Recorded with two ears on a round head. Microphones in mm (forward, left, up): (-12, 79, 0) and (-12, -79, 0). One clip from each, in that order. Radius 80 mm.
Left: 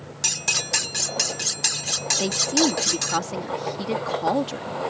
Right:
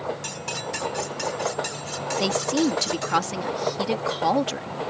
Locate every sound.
0.2 s cutlery clinking: 70° left (ahead or behind)
2.2 s a woman speaking: 25° right (ahead or behind)